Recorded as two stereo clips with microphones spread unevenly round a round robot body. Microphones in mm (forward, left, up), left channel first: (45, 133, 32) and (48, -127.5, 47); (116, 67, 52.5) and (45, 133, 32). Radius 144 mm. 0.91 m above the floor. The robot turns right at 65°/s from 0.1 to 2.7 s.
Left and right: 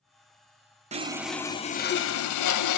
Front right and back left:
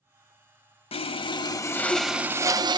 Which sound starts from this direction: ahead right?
Sawing, at 0.9 s.